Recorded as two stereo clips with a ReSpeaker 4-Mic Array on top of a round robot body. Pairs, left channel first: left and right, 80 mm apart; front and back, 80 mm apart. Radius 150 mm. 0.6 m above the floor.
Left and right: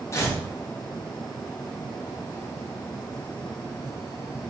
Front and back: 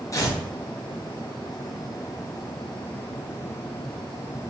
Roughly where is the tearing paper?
Ahead left.